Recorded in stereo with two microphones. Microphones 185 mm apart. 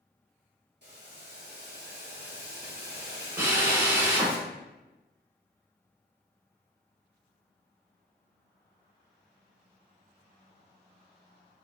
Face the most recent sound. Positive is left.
turn(degrees=-15)  # may be behind; listen again after turning